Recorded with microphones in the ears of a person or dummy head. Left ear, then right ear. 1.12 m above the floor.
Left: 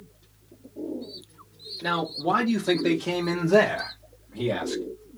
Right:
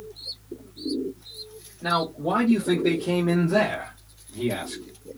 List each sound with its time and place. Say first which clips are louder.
1.8 s a man speaking: right 2 dB; 50° left (ahead or behind), 1.5 m; by 4.8 s 40° left (ahead or behind), 1.2 m